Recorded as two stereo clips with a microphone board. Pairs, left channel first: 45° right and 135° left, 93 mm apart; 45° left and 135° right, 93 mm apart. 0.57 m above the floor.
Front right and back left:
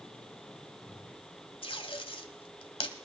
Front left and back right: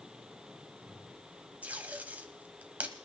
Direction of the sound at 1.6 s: 60° right.